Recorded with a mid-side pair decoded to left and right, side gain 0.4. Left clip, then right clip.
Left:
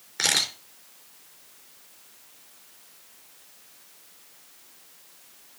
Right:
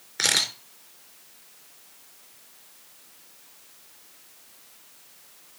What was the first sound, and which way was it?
A camera shutter, straight ahead.